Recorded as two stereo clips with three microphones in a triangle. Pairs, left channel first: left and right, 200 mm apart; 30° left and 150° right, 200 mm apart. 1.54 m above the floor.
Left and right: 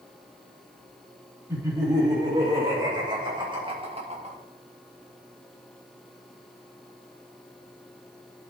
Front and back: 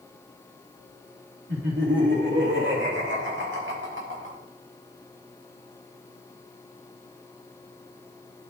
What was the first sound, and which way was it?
Laughter, 165° right.